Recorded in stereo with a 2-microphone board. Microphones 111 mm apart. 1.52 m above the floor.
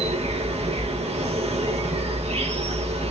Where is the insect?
75° right (ahead or behind), 2 m.